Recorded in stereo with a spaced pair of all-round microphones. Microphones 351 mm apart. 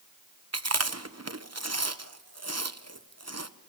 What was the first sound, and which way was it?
Chewing, 50° right (ahead or behind).